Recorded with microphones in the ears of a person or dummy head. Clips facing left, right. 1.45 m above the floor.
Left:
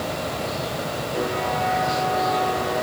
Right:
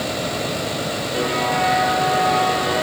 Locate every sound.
Only background noise.